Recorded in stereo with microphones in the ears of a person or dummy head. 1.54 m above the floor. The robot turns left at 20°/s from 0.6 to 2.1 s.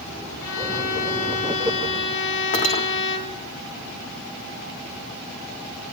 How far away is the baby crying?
I don't hear a baby crying.